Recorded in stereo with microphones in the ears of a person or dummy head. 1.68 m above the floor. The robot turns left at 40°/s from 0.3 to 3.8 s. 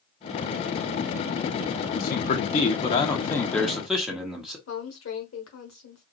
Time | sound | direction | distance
2.0 | a man speaking | 70° left | 1.0 m
4.7 | a woman speaking | 80° left | 1.2 m